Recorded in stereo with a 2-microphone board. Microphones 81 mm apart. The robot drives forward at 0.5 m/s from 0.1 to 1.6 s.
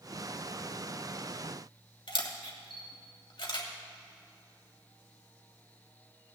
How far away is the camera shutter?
About 1.6 m.